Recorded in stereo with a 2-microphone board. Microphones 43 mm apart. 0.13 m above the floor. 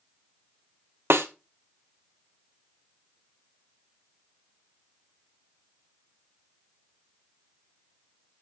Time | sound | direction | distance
1.1 | a snare drum | 70° right (ahead or behind) | 0.8 m